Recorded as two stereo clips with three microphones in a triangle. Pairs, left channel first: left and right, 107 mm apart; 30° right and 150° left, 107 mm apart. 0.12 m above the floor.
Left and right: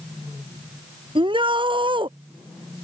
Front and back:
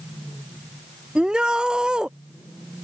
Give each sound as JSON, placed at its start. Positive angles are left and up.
{"t": 1.1, "sound": "a shout", "azimuth_deg": -130}